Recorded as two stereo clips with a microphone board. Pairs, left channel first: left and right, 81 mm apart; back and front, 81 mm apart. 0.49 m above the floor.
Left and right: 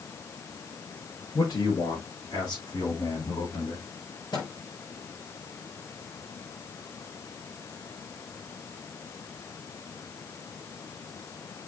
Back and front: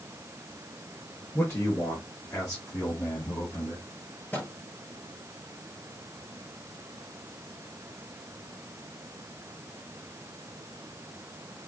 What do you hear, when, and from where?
1.3 s a man speaking: 125° left, 6 m; by 3.9 s 135° left, 5 m
4.3 s a microwave: 110° left, 6 m